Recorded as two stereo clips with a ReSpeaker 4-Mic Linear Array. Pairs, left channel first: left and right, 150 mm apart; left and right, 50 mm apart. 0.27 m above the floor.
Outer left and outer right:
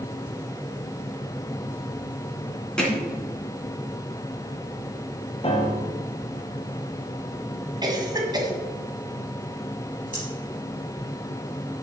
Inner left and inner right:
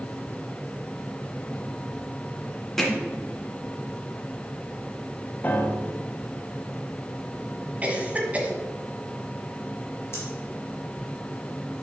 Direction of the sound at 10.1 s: 55° left (ahead or behind).